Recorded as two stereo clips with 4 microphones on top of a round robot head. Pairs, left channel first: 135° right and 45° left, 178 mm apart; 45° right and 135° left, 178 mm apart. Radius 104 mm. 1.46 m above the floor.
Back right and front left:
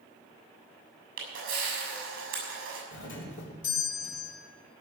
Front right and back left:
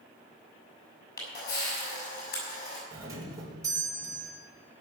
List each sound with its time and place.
1.2 s a camera shutter: straight ahead, 6.5 m
2.9 s a doorbell: 150° right, 3.5 m